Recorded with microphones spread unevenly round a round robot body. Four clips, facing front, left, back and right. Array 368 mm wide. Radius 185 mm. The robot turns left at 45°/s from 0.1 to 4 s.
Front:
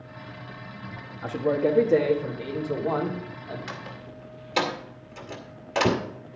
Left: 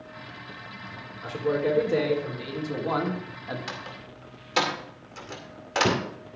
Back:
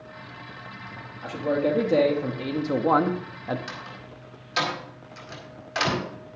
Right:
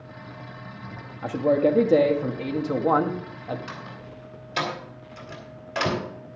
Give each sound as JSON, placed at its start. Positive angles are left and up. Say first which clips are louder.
{"t": 1.2, "sound": "a man speaking", "louder": "right 5 dB, front 1 dB", "azimuth_deg": -70, "distance_m": 1.8}
{"t": 3.7, "sound": "a door slam", "louder": "even, front 1 dB", "azimuth_deg": 55, "distance_m": 2.5}